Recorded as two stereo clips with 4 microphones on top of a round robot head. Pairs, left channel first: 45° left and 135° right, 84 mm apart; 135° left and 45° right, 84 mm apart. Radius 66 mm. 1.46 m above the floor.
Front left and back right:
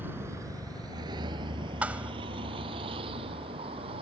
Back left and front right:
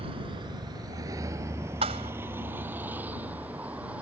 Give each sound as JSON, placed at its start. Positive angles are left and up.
{"t": 0.0, "sound": "a vehicle", "azimuth_deg": -65}
{"t": 1.8, "sound": "a thud", "azimuth_deg": -60}